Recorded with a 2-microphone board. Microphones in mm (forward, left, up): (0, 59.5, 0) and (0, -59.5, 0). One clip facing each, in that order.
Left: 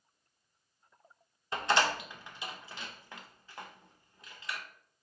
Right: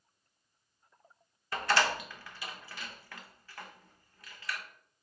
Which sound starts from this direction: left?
A door slam, at 1.5 s.